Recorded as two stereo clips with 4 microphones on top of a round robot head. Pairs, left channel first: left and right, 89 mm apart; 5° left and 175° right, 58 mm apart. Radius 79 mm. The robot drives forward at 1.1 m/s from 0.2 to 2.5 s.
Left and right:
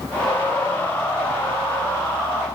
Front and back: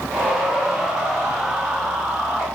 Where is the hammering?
No hammering in this recording.